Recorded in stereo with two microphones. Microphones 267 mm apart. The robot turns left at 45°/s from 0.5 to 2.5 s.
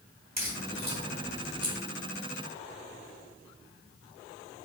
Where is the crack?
75° right (ahead or behind), 3 m; by 1.8 s 40° right (ahead or behind), 3 m.